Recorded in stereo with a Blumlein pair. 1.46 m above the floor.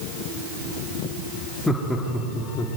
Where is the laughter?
5° left, 3 m; by 2.7 s 25° left, 3.5 m.